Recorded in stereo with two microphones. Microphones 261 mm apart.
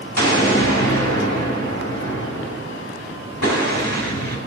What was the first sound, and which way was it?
An explosion, 80° left.